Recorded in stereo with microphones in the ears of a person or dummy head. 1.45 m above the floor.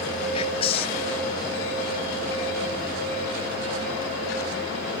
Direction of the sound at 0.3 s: 35° left (ahead or behind).